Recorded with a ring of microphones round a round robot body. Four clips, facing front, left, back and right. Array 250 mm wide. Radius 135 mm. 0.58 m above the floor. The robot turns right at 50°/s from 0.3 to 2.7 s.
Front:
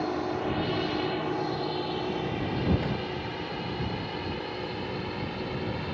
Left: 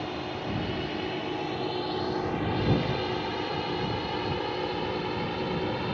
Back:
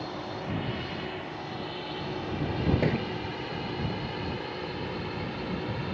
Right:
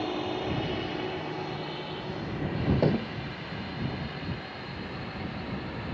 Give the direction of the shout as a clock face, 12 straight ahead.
I don't hear a shout.